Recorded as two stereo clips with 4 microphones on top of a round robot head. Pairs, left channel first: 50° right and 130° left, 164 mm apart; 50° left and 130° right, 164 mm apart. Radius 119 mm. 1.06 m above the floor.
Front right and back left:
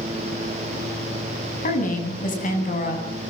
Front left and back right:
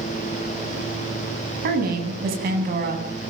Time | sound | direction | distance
1.6 | a woman speaking | 95° right | 8.5 m